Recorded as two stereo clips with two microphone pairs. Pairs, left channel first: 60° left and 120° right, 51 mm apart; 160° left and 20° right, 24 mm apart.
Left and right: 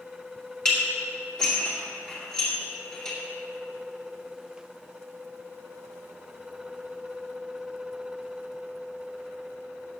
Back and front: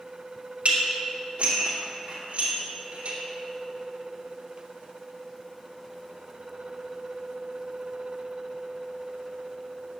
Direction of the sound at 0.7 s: 10° right.